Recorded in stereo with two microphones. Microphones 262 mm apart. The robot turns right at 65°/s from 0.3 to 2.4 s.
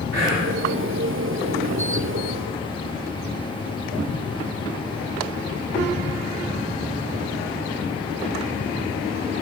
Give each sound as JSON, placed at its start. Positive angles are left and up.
{"t": 0.1, "sound": "whispering", "side_deg": -50, "distance_m": 1.6}